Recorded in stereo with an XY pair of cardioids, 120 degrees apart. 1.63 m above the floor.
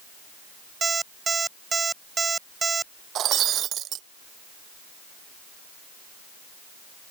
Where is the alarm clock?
30° right.